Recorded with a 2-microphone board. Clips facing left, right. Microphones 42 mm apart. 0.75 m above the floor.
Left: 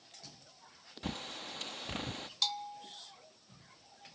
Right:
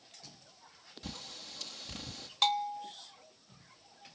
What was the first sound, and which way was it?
A bird, 35° left (ahead or behind).